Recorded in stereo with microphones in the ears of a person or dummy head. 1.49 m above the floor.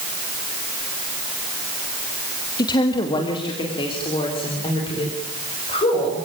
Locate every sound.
2.6 s a woman speaking: 20° left (ahead or behind), 1.8 m; by 6.2 s 30° left (ahead or behind), 7 m